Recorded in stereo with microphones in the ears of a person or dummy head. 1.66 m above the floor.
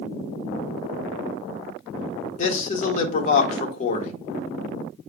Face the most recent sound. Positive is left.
turn(degrees=45)  # may be behind; listen again after turning